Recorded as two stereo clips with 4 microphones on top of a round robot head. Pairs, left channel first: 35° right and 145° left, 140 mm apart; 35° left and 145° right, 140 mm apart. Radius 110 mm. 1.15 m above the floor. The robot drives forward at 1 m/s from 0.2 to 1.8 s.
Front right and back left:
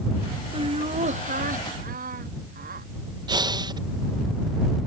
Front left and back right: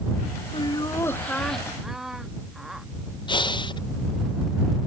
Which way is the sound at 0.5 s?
90° left.